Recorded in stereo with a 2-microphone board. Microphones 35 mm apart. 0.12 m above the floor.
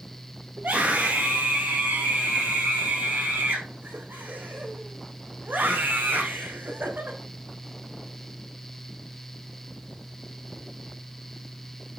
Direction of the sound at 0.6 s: 60° right (ahead or behind).